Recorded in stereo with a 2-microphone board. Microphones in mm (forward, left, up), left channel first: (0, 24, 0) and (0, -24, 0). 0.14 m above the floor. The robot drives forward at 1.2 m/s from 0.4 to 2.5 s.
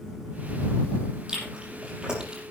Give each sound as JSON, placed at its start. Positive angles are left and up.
{"t": 1.3, "sound": "chewing", "side_deg": -15, "distance_m": 6.0}